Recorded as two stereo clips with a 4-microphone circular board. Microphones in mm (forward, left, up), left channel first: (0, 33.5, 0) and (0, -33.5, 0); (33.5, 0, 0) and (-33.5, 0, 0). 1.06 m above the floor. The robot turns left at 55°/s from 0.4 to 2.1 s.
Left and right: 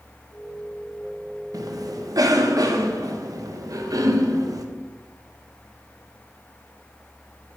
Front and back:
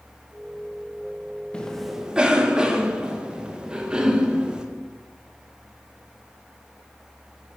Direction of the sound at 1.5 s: 75° right.